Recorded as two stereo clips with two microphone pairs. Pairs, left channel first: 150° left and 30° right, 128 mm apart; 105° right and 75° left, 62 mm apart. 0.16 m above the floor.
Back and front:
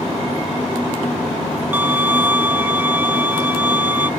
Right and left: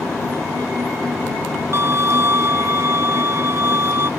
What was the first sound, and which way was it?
A violin, 45° left.